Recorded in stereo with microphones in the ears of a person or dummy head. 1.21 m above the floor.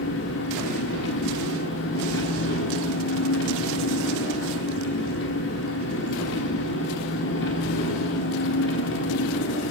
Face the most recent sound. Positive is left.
turn(degrees=70)  # may be behind; listen again after turning